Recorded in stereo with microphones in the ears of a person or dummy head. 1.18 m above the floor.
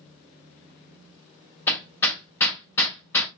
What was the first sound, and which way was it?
Hammering, 15° left (ahead or behind).